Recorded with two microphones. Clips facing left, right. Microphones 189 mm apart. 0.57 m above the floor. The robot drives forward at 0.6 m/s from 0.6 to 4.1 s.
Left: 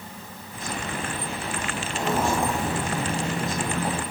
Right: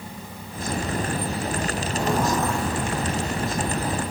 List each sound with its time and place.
1.9 s footsteps: 5° right (ahead or behind), 1.1 m; by 4.0 s 45° left (ahead or behind), 2.5 m